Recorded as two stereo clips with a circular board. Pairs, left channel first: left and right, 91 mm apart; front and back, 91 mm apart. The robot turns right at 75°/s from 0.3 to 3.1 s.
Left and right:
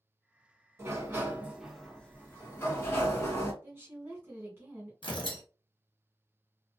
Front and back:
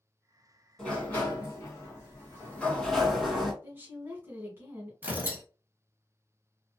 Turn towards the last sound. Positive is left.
turn(degrees=110)